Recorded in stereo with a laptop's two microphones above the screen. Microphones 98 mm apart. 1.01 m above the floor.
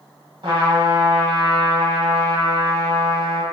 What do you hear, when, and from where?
0.4 s a trumpet: 55° right (ahead or behind), 1.4 m